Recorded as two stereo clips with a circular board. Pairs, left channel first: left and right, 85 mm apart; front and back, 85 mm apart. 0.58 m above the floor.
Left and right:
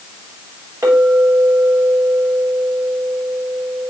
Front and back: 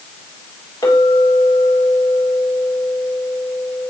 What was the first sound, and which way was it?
A clink, 40° right.